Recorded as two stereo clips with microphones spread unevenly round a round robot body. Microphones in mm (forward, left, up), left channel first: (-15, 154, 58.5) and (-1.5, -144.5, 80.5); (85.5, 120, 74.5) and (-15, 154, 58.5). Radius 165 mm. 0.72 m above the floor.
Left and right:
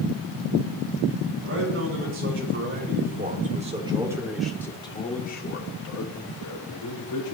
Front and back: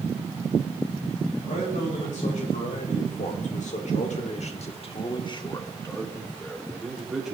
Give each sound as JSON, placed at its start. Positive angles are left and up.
{"t": 1.4, "sound": "a man speaking", "azimuth_deg": -40, "distance_m": 4.5}